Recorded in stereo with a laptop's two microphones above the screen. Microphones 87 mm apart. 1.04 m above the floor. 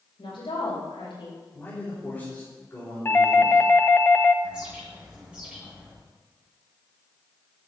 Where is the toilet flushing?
No toilet flushing in this recording.